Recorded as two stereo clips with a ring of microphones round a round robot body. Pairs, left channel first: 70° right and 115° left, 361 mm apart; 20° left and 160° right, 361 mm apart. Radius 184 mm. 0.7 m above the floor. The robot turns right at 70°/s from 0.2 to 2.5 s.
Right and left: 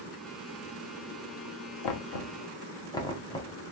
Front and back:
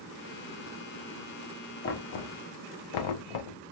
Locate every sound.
1.8 s knocking: 35° right, 0.6 m; by 3.6 s 10° left, 0.6 m